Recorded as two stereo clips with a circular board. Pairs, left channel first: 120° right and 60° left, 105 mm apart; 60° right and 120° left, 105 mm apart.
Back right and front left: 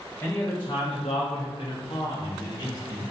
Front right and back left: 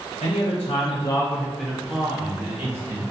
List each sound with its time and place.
0.2 s a man speaking: 60° right, 0.7 m; by 3.0 s 175° right, 1.5 m